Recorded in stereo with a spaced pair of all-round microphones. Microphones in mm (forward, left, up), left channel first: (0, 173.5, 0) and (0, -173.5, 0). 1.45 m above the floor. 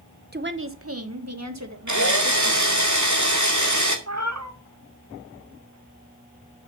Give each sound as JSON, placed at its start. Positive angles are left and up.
{"t": 0.3, "sound": "a woman speaking", "side_deg": -30, "distance_m": 1.0}
{"t": 1.9, "sound": "a drill", "side_deg": -60, "distance_m": 2.0}
{"t": 4.1, "sound": "a cat meowing", "side_deg": -55, "distance_m": 1.6}